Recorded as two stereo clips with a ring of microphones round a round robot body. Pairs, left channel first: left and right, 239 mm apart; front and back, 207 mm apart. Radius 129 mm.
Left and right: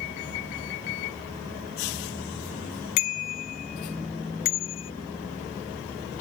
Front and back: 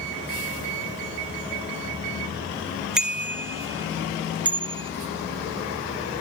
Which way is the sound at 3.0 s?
95° left.